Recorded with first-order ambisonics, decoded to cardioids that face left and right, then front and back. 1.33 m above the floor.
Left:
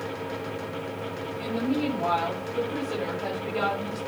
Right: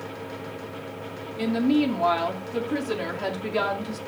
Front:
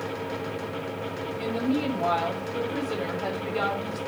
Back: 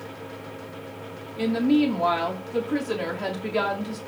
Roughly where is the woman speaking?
Behind right.